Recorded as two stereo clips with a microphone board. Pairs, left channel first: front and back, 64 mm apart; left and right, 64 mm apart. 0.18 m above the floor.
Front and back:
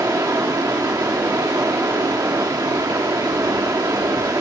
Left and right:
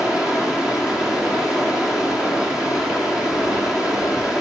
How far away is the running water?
About 2 m.